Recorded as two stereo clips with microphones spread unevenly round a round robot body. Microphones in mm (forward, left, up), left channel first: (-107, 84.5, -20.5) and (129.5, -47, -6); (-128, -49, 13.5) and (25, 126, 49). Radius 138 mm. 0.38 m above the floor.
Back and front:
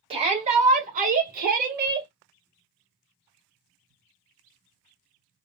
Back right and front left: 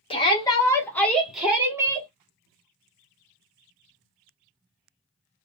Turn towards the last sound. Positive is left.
turn(degrees=-25)